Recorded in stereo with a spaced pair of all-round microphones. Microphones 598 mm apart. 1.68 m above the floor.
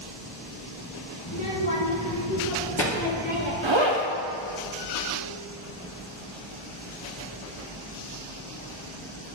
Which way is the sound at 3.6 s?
50° right (ahead or behind).